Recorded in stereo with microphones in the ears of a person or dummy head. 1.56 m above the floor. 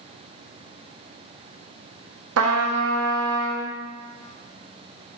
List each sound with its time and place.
2.4 s a trumpet: 85° right, 1.1 m